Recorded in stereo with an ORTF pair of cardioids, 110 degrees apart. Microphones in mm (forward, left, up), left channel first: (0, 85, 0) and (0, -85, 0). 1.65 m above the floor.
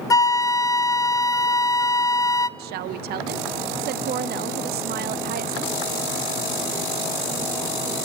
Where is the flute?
20° left, 0.8 m.